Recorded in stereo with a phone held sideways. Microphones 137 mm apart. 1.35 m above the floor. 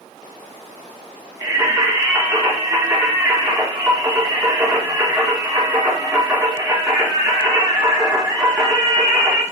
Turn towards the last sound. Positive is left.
turn(degrees=-15)  # may be behind; listen again after turning